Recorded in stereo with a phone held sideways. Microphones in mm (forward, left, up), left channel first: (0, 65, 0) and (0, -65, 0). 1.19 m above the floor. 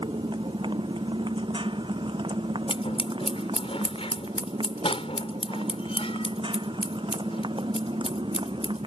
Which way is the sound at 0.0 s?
40° right (ahead or behind).